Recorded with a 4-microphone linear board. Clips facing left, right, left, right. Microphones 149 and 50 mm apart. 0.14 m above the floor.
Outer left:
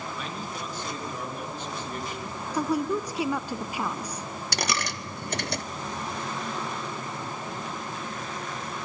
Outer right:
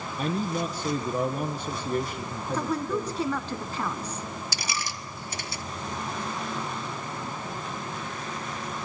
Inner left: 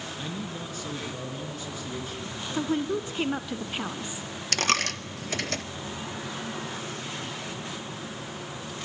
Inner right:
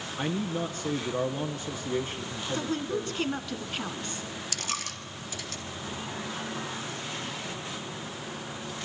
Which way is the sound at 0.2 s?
40° right (ahead or behind).